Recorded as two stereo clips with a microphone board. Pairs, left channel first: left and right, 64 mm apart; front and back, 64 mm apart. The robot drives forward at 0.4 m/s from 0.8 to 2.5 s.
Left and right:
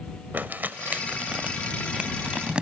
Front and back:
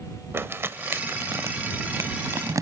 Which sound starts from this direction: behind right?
Crumpling, at 0.3 s.